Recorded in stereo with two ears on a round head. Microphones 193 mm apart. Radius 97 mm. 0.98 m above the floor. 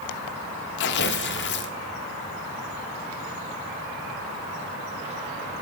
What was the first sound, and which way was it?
Tearing paper, 55° left (ahead or behind).